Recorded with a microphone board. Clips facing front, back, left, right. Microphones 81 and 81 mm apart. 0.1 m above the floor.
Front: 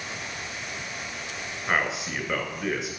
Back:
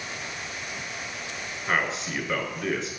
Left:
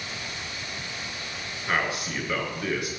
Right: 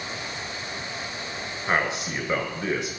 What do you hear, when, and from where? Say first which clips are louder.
1.7 s a man speaking: even, right 2 dB; 75° right, 1.1 m